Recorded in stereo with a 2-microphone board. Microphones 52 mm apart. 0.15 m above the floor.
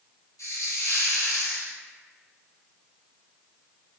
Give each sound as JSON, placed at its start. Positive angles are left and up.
{"t": 0.4, "sound": "a hiss", "side_deg": 80, "distance_m": 0.6}